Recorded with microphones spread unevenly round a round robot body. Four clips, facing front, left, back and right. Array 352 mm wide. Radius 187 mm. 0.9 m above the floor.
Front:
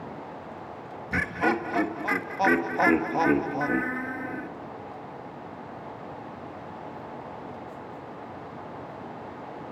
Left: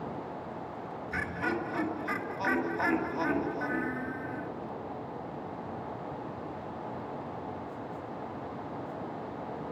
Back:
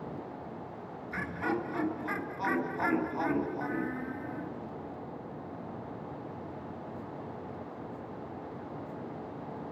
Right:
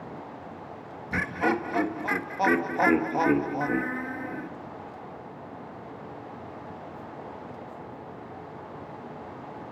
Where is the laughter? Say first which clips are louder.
Right 7 dB, front 7 dB; 35° right, 1.9 m.